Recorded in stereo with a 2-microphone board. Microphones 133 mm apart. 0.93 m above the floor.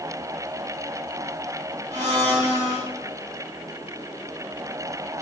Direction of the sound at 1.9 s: 60° right (ahead or behind).